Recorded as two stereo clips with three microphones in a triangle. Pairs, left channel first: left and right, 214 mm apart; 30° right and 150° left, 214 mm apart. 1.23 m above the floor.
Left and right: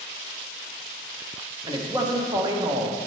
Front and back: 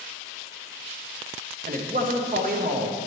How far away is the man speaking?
About 0.8 m.